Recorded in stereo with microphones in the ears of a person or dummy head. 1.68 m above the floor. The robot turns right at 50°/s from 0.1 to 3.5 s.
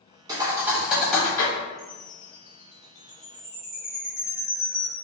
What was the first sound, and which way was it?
A thud, 20° right (ahead or behind).